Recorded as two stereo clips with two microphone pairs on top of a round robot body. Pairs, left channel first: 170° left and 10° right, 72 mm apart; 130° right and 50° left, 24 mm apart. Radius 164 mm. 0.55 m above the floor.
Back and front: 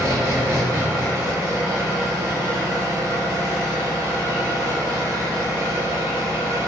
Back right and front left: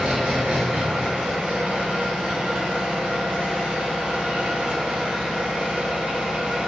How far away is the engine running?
About 0.7 m.